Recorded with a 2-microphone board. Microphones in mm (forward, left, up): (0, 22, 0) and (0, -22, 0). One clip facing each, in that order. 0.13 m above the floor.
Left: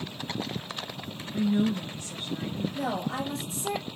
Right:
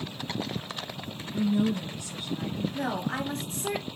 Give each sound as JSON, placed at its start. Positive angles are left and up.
{"t": 1.3, "sound": "a woman speaking", "side_deg": 25, "distance_m": 1.8}
{"t": 2.7, "sound": "a woman speaking", "side_deg": -45, "distance_m": 2.5}